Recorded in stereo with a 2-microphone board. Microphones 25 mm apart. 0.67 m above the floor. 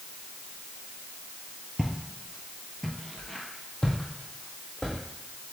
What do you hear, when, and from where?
1.8 s footsteps: 30° right (ahead or behind), 0.7 m; by 5.0 s 30° left (ahead or behind), 1.9 m